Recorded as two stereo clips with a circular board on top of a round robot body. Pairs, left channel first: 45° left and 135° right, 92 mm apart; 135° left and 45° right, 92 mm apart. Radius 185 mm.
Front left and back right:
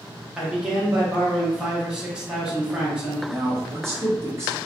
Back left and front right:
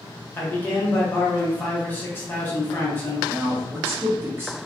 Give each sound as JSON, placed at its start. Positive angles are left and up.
{"t": 0.4, "sound": "a man speaking", "azimuth_deg": 160, "distance_m": 1.0}
{"t": 3.3, "sound": "a man speaking", "azimuth_deg": -95, "distance_m": 1.7}